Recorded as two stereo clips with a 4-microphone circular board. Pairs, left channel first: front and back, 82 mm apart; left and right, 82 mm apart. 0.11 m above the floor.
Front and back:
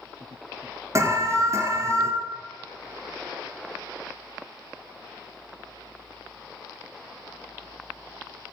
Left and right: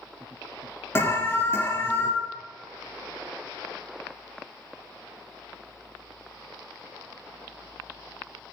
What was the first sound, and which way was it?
An alarm, 140° left.